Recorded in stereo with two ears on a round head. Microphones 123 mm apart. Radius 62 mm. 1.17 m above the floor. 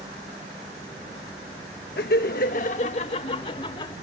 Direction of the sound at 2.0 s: 80° left.